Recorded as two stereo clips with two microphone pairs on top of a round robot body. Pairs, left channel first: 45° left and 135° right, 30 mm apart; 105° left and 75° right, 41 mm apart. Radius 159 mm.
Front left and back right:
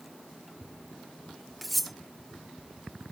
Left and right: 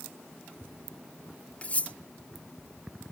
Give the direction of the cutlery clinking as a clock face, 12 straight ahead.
7 o'clock.